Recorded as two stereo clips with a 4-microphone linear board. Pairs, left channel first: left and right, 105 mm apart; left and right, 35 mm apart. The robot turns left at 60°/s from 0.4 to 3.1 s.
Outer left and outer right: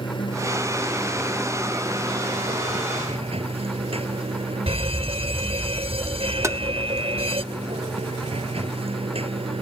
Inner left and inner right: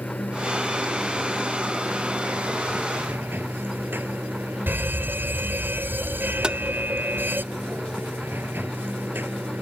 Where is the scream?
I don't hear a scream.